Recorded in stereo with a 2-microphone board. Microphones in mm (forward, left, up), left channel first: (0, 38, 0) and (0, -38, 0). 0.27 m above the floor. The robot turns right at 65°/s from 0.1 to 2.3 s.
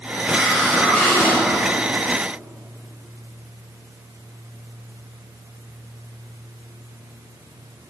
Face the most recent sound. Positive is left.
turn(degrees=105)